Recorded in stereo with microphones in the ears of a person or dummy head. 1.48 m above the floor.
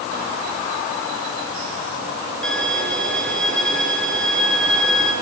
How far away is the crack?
No crack in this recording.